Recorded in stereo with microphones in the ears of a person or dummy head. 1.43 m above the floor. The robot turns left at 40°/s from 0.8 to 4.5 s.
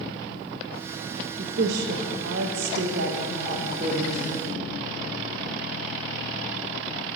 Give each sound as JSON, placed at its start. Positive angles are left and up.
{"t": 1.4, "sound": "a woman speaking", "azimuth_deg": -50, "distance_m": 0.6}